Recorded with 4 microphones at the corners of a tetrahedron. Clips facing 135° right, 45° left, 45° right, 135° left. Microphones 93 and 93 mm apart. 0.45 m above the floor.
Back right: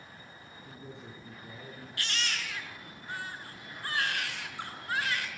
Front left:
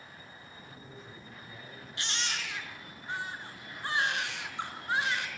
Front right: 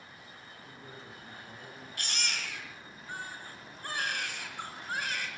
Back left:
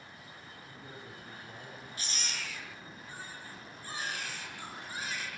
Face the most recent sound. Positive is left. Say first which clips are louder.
# even, front right 4 dB
turn(degrees=-25)